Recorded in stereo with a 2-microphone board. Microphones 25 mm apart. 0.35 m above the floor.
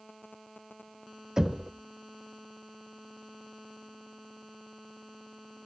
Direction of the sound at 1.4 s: 25° right (ahead or behind).